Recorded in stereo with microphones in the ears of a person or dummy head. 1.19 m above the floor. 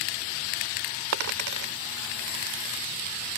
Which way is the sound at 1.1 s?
65° right (ahead or behind).